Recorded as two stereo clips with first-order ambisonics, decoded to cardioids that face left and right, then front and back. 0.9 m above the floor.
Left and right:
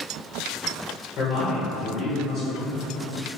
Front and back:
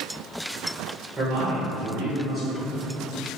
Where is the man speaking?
130° left, 1.1 m.